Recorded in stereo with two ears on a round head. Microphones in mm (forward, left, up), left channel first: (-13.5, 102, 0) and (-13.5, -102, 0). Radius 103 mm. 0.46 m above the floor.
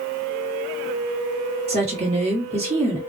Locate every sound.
1.7 s a woman speaking: 30° right (ahead or behind), 1.1 m